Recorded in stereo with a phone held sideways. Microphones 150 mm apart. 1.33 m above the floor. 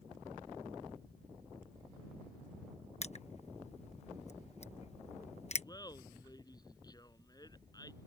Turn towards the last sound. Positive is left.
turn(degrees=25)  # may be behind; listen again after turning